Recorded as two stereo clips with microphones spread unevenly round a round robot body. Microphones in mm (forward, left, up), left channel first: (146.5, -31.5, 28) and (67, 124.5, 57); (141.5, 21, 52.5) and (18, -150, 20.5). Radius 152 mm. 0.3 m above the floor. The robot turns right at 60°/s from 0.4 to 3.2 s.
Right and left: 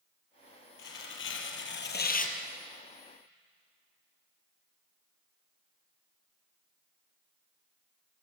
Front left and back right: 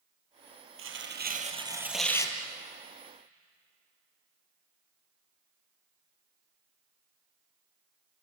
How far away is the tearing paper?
About 3.5 m.